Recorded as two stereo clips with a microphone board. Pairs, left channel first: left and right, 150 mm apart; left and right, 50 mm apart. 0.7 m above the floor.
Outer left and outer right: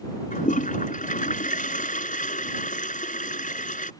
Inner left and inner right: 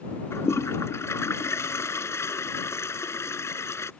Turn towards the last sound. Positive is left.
turn(degrees=65)  # may be behind; listen again after turning